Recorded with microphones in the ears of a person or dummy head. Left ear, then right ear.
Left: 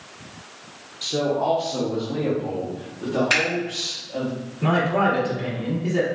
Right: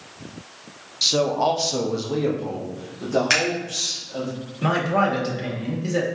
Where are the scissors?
40° right (ahead or behind), 1.7 m.